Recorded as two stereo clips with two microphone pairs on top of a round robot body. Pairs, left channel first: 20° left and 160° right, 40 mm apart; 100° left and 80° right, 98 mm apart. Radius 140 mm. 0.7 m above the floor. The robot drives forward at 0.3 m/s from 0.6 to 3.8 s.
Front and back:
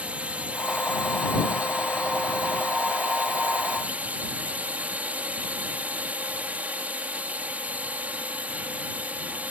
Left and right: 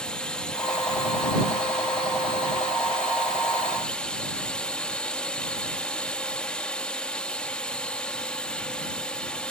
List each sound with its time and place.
0.0 s a drone: 170° left